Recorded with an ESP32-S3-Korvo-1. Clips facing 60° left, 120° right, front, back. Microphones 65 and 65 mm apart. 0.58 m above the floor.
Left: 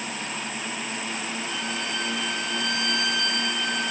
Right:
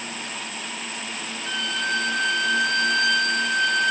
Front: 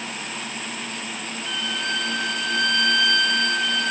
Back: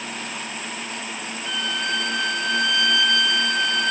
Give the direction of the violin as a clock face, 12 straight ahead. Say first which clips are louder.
Right 4 dB, back 2 dB; 3 o'clock.